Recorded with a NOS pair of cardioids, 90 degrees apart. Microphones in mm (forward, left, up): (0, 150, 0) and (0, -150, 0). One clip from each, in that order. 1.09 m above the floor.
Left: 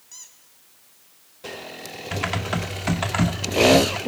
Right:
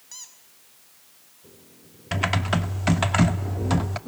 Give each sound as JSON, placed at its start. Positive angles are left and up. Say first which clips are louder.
{"t": 0.1, "sound": "a squeak", "louder": "right 2 dB", "azimuth_deg": -25, "distance_m": 4.5}
{"t": 2.1, "sound": "typing on a keyboard", "louder": "right 2 dB", "azimuth_deg": -15, "distance_m": 1.9}